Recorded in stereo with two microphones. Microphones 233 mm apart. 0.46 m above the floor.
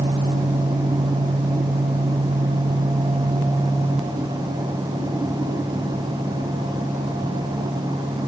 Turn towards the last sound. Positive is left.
No sound to turn to.